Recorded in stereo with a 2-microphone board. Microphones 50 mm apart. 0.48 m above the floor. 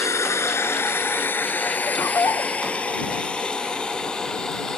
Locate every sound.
0.0 s a drone: 70° left (ahead or behind); by 4.8 s 15° left (ahead or behind)
1.8 s laughter: 70° left (ahead or behind)